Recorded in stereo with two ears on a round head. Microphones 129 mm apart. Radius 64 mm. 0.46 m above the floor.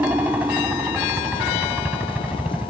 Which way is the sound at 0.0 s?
10° right (ahead or behind).